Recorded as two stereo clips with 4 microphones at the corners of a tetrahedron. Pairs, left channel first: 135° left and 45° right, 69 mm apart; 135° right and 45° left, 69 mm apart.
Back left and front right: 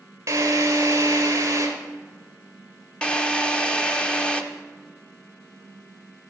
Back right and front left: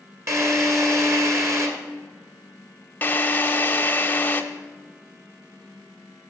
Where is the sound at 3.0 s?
165° right, 0.9 m.